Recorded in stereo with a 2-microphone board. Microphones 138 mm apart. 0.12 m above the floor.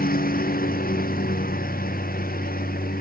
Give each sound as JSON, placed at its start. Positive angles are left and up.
{"t": 0.0, "sound": "a lawn mower", "side_deg": 90}